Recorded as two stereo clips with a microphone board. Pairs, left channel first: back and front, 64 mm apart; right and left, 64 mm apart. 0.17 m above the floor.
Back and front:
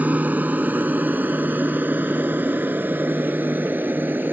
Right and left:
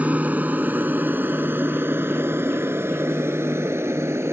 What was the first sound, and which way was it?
An aircraft, 40° left.